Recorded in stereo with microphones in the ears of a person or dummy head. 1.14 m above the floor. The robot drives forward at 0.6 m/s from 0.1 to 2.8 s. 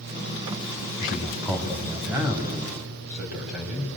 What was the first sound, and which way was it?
A man speaking, 15° right (ahead or behind).